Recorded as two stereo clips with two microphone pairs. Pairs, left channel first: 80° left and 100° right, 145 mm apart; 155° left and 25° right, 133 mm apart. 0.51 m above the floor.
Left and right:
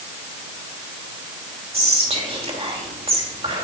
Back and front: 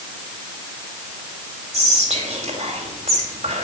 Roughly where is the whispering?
Ahead right.